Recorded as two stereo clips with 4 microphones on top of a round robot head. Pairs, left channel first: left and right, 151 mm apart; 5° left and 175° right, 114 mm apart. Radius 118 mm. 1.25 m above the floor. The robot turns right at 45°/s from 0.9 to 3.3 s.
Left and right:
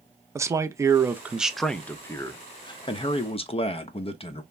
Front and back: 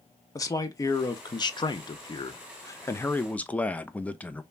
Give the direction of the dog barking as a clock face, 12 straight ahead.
No dog barking in this recording.